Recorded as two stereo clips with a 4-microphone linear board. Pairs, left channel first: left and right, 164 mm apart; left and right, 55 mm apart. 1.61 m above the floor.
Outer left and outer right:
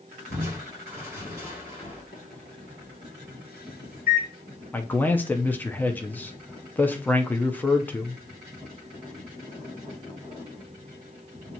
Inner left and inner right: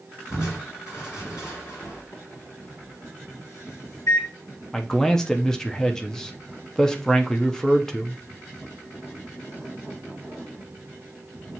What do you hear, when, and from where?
0.3 s crushing: 70° left (ahead or behind), 3 m
2.1 s a microwave: 65° left (ahead or behind), 1.3 m
4.7 s a man speaking: 10° left (ahead or behind), 0.5 m